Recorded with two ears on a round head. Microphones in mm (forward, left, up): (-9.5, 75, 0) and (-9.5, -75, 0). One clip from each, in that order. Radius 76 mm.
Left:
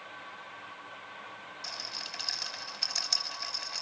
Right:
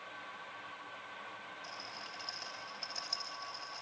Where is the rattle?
65° left (ahead or behind), 3.5 m.